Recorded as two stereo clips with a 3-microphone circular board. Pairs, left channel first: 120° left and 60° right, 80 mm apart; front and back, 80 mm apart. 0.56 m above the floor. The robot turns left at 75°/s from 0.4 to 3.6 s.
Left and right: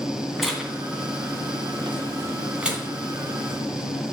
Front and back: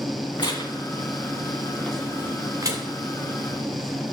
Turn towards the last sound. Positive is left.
turn(degrees=155)